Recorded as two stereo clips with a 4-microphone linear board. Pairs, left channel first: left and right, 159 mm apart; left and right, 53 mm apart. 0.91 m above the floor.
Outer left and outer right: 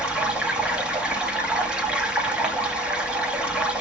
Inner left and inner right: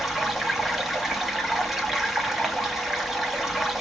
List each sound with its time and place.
0.0 s running water: 5° right (ahead or behind), 0.9 m